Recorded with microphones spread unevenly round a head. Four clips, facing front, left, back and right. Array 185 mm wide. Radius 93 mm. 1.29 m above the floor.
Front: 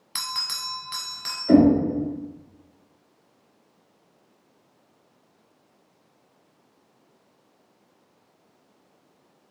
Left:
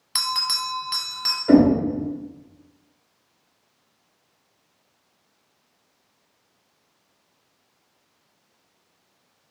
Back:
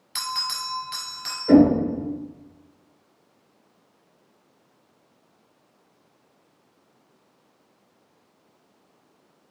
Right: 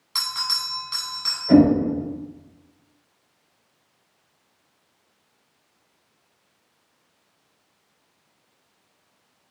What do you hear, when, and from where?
0.1 s a bell: 55° left, 1.1 m
1.5 s knocking: 110° left, 2 m